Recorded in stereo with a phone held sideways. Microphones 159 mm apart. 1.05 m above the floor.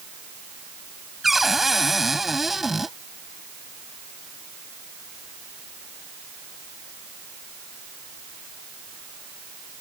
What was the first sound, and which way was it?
A cupboard door, centre (ahead or behind).